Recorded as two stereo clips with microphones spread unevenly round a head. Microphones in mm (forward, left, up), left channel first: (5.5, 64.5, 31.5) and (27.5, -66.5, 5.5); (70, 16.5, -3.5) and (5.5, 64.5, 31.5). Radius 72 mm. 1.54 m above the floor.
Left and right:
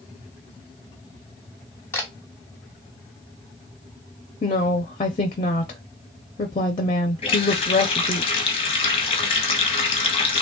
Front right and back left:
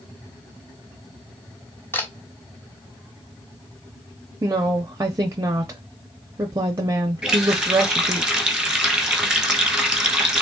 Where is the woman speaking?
130° left, 0.6 m.